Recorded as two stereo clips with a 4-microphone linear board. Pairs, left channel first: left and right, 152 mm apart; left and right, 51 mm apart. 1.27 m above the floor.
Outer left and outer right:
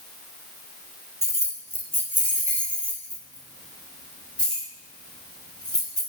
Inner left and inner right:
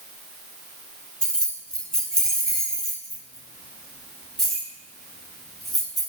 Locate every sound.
1.2 s keys jangling: 20° left (ahead or behind), 2.5 m; by 6.0 s 5° left (ahead or behind), 8 m